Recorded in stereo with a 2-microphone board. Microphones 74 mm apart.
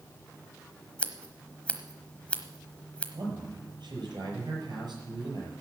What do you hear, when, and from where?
1.0 s scissors: 15° left (ahead or behind), 1.1 m
3.1 s a man speaking: 75° right (ahead or behind), 6.5 m